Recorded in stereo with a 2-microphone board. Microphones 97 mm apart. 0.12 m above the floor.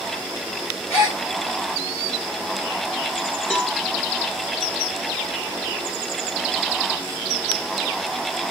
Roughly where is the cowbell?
Centre.